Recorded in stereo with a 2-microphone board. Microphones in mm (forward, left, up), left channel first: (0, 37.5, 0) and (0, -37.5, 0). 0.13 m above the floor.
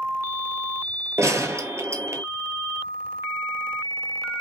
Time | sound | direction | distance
1.2 | a gunshot | 40° right (ahead or behind) | 0.6 m